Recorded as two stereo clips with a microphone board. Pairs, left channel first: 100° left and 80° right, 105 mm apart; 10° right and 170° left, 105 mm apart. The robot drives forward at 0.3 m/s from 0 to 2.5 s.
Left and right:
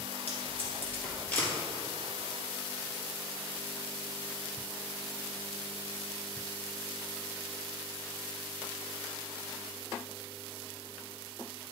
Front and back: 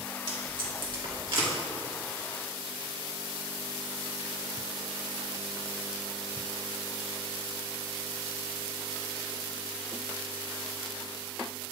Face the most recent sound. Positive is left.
turn(degrees=170)